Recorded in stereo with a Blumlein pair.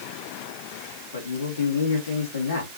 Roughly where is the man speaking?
Ahead left.